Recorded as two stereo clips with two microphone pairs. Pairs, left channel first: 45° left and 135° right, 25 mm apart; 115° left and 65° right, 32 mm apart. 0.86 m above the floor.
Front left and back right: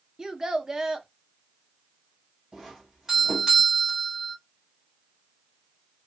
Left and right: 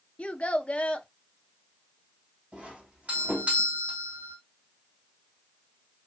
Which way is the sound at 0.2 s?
160° left.